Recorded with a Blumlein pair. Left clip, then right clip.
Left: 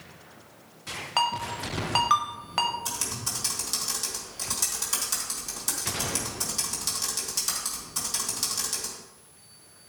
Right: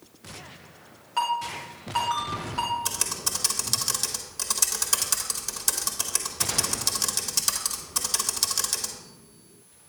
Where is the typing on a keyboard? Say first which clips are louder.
Right 3 dB; 20° right, 1.4 m.